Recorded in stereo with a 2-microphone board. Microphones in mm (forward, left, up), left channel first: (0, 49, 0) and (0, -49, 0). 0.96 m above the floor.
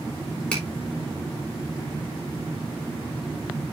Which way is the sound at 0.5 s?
10° left (ahead or behind).